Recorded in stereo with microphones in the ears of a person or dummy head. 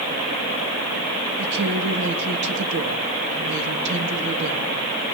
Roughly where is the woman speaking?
Right.